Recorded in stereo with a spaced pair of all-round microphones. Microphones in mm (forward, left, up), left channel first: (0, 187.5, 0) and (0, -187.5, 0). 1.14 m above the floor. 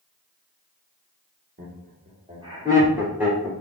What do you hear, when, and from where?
1.6 s laughter: 30° right (ahead or behind), 1.3 m; by 3.5 s centre (ahead or behind), 2 m